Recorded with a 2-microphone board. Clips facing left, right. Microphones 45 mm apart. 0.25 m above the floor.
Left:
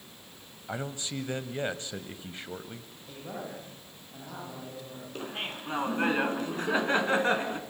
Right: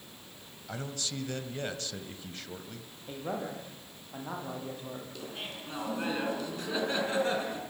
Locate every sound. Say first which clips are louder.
0.7 s a man speaking: left 3 dB; 25° left (ahead or behind), 1.5 m
3.1 s a man speaking: right 4 dB; 30° right (ahead or behind), 8.5 m
5.2 s laughter: left 4 dB; 40° left (ahead or behind), 3.5 m